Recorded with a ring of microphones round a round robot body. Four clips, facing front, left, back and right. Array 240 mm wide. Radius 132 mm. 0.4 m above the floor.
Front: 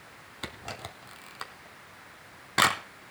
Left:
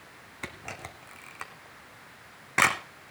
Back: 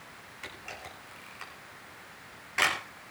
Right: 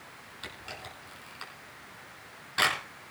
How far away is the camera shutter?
About 1.2 m.